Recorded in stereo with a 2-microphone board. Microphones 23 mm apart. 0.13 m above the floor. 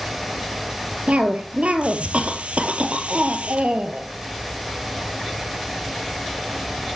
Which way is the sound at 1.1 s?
65° right (ahead or behind).